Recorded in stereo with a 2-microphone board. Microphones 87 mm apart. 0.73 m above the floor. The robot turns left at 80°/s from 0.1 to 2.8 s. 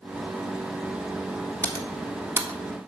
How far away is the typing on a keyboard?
About 1.6 m.